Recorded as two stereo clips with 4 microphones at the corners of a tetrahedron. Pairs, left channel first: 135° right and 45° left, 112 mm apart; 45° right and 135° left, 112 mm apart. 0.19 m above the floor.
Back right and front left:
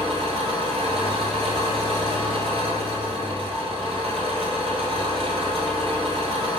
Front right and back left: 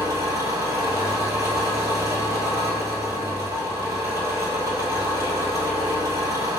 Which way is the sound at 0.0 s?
75° left.